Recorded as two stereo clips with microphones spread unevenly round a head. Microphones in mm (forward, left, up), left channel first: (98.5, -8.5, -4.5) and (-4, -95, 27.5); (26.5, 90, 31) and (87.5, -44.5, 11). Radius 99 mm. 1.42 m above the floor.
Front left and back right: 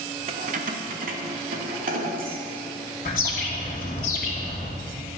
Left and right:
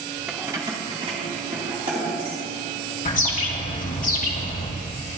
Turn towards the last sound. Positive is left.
turn(degrees=80)